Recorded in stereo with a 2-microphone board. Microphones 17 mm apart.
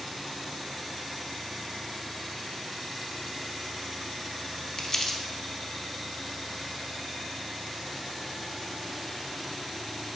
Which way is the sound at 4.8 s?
35° left (ahead or behind).